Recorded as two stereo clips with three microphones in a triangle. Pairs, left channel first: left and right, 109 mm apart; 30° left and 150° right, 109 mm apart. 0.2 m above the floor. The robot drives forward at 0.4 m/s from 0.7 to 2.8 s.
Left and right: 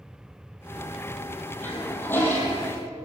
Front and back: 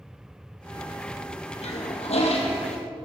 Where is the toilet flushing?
20° left, 3.5 m.